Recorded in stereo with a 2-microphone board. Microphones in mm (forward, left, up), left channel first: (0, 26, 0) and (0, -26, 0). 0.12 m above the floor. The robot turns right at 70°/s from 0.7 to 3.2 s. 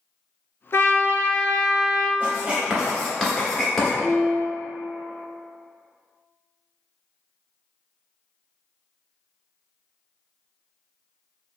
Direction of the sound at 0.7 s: 100° left.